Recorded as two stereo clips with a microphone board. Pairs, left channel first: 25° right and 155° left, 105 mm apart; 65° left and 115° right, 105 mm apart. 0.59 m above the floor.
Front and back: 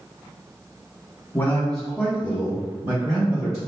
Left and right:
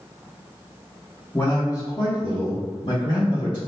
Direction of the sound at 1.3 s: 25° left.